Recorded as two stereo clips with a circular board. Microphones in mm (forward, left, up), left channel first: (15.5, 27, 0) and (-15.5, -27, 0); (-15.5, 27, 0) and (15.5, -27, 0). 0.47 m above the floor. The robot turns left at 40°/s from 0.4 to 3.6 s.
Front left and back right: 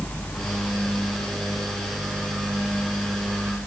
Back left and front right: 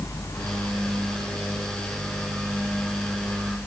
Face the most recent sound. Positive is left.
No sound to turn to.